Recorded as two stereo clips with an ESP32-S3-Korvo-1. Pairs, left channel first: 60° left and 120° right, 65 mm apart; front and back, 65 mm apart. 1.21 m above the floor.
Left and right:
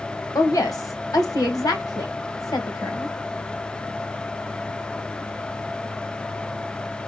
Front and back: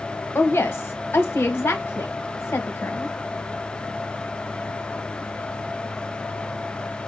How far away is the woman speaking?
About 1.3 m.